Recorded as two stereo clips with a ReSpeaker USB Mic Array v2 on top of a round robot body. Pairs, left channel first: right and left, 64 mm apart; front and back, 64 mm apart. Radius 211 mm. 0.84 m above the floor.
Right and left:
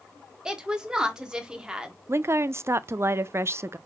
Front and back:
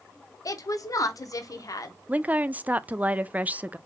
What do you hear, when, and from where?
0.5 s a woman speaking: 15° left, 1.5 m
2.1 s a woman speaking: 120° left, 0.5 m